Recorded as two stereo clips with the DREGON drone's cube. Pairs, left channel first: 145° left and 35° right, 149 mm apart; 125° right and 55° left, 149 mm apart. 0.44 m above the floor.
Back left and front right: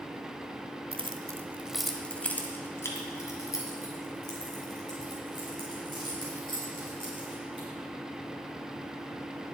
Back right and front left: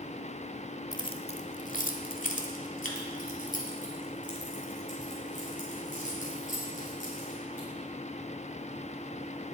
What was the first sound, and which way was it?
Keys jangling, 65° right.